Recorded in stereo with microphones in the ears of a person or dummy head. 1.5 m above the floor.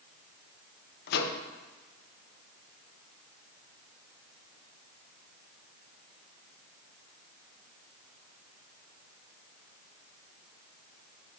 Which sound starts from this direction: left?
A microwave, at 1.1 s.